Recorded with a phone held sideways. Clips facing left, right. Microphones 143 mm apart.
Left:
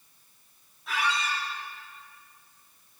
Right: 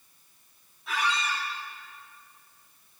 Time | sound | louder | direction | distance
0.9 | a squeak | even | centre (ahead or behind) | 2.5 m